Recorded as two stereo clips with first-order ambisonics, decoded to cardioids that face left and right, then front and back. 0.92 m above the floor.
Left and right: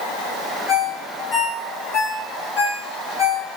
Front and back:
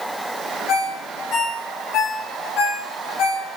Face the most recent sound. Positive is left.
turn(degrees=50)